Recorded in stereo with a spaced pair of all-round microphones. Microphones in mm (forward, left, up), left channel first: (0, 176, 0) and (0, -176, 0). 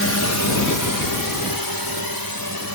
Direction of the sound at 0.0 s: 40° left (ahead or behind).